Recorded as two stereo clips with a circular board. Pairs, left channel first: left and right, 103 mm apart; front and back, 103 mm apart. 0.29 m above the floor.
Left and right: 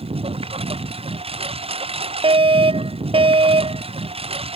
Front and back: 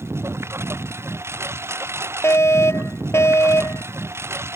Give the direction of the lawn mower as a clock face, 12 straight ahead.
4 o'clock.